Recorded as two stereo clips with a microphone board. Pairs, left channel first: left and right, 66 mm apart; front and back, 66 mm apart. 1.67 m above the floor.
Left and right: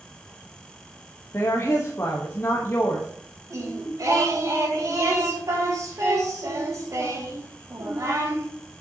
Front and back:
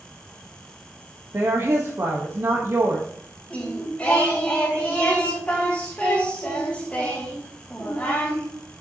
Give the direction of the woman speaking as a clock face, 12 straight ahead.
7 o'clock.